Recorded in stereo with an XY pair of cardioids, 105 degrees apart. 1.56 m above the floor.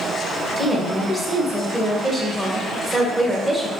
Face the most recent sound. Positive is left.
turn(degrees=-10)